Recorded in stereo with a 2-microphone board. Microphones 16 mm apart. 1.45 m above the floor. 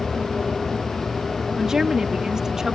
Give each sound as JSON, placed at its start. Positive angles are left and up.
{"t": 1.6, "sound": "a woman speaking", "side_deg": -40}